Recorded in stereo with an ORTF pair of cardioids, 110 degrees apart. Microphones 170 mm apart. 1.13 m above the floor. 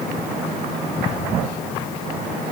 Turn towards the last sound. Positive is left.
No sound to turn to.